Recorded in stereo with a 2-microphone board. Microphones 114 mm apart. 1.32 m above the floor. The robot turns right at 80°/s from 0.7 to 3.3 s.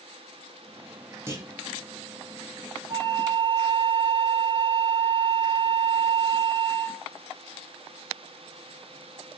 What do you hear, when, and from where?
1.3 s a clunk: 20° right (ahead or behind), 0.6 m; by 1.5 s 40° right (ahead or behind), 0.6 m
2.9 s a flute: 100° right, 1.5 m; by 7.1 s 65° right, 1.5 m